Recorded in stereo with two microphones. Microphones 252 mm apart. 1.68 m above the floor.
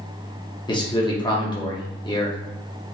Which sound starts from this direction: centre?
A man speaking, at 0.7 s.